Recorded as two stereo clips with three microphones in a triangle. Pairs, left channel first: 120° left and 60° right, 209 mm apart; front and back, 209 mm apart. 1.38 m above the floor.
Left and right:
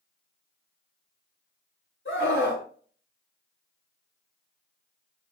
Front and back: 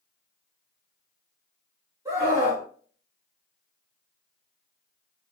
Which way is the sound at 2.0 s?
105° left.